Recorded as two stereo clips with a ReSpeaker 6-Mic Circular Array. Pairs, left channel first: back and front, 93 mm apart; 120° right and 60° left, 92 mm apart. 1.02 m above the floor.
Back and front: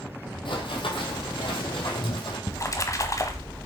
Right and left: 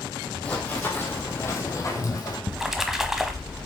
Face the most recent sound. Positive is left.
turn(degrees=140)